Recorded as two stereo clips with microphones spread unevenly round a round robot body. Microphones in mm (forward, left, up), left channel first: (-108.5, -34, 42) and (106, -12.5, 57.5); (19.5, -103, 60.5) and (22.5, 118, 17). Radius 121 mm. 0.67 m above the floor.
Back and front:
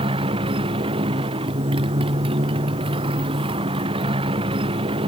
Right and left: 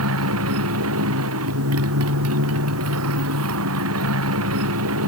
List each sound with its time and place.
0.0 s a motorcycle: 75° left